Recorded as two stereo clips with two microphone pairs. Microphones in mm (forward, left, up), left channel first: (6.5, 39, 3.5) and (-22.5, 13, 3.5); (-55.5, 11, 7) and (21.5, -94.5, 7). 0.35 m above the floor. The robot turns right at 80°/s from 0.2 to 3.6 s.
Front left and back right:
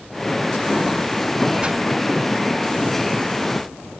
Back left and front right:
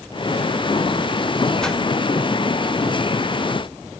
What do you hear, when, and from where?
1.6 s a whoosh: 155° right, 0.9 m; by 1.8 s 135° right, 0.9 m